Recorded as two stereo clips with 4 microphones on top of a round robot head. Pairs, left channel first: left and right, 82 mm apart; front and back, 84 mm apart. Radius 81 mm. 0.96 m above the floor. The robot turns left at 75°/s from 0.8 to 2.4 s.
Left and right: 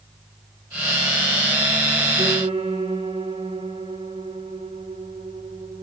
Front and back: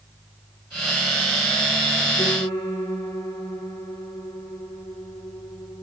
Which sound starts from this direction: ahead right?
A piano, at 2.2 s.